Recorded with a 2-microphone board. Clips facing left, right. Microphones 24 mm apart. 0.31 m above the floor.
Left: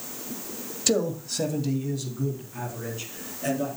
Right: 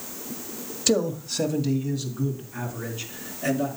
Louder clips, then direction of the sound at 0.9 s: Right 1 dB; 5° right (ahead or behind).